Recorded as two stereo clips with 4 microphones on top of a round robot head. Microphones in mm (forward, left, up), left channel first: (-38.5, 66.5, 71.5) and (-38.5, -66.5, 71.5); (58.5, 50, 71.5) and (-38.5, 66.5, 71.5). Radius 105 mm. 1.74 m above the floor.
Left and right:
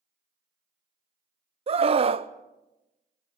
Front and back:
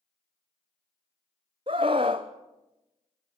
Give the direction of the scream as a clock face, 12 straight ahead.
4 o'clock.